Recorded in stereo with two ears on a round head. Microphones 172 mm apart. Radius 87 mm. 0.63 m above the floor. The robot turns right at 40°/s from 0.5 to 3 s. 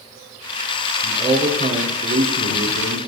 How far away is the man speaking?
About 3 m.